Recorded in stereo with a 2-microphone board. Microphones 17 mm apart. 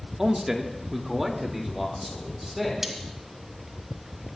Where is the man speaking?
25° right (ahead or behind), 1.0 m; by 3.1 s centre (ahead or behind), 4 m.